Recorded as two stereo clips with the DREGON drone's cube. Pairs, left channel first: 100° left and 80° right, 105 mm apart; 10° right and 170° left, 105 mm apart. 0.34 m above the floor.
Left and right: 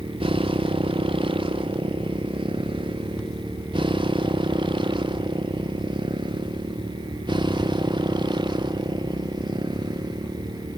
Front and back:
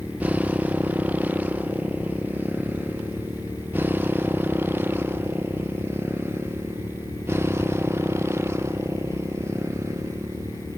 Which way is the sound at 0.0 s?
115° right.